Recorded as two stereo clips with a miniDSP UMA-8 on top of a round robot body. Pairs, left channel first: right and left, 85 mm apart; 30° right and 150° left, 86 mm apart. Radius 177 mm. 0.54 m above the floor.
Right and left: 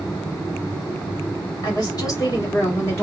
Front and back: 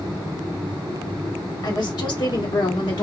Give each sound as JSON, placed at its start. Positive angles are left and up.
{"t": 1.6, "sound": "a woman speaking", "azimuth_deg": -55, "distance_m": 2.0}